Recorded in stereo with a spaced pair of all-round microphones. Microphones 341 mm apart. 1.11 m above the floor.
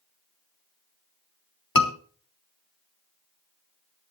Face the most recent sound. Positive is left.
turn(degrees=80)